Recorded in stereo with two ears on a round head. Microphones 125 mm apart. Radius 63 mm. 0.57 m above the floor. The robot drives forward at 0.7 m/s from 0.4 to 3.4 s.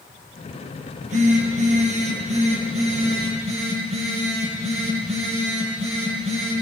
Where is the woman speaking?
I don't hear a woman speaking.